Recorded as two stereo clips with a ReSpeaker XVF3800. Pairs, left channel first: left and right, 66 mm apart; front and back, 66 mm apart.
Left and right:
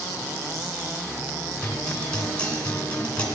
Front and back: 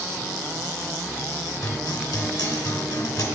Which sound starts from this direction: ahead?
A guitar, at 1.6 s.